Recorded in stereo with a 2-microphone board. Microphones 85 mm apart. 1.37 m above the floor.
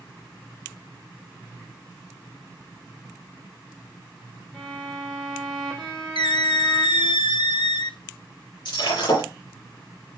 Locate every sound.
4.5 s a violin: 10° left (ahead or behind), 2.5 m
6.2 s a squeak: 70° left (ahead or behind), 0.6 m
8.7 s breaking glass: 80° left, 7.5 m